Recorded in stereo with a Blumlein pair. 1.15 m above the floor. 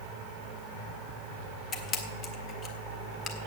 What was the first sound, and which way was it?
A camera shutter, 30° left.